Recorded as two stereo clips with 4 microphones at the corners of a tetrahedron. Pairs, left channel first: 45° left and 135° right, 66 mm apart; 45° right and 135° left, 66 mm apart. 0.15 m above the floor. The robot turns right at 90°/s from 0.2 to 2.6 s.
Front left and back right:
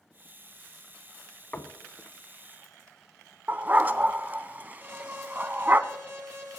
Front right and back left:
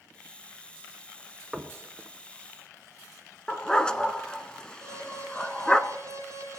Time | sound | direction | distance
1.5 | knocking | 60° left | 0.7 m
3.5 | a dog barking | 110° right | 0.5 m
4.8 | an alarm | 175° left | 4 m